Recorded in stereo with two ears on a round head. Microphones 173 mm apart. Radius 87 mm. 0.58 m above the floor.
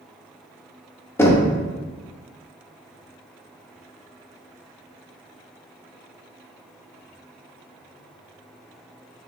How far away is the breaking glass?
No breaking glass in this recording.